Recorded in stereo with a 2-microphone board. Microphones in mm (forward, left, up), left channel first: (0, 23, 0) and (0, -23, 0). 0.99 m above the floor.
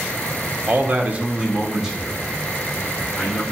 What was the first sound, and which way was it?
A man speaking, 30° right (ahead or behind).